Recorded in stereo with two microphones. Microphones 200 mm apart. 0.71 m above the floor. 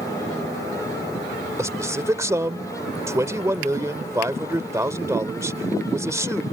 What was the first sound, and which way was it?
A man speaking, 15° right (ahead or behind).